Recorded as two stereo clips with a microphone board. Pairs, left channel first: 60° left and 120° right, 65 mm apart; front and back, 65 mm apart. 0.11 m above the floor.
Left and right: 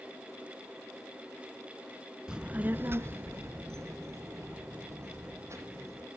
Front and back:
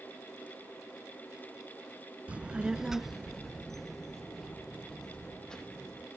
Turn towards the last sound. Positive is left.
turn(degrees=-80)